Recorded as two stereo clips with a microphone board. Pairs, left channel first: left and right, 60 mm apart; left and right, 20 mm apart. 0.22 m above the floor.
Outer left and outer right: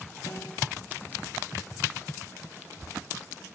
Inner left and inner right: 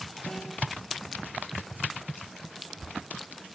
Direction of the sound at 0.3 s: 85° left.